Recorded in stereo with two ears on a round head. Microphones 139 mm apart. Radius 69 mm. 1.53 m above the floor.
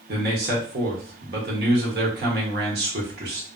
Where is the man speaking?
70° right (ahead or behind), 1.1 m.